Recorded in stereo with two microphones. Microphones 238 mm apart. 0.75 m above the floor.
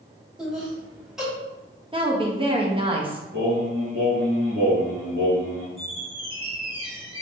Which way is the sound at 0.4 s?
5° right (ahead or behind).